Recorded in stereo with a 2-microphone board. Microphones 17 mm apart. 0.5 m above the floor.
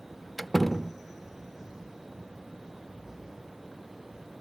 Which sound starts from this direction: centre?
A door slam, at 0.4 s.